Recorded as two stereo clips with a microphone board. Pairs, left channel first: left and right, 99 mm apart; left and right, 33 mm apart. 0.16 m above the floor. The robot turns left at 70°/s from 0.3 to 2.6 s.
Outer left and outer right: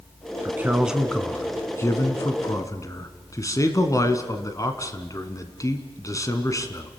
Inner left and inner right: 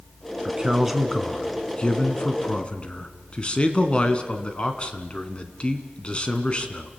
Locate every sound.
0.5 s a man speaking: 140° right, 1.7 m; by 6.9 s 70° left, 1.7 m